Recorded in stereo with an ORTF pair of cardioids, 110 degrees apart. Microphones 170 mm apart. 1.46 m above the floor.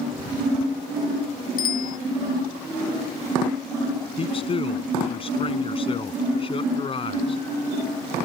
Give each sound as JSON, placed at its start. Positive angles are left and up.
{"t": 1.6, "sound": "a bicycle bell", "azimuth_deg": 55}
{"t": 4.2, "sound": "a man speaking", "azimuth_deg": 30}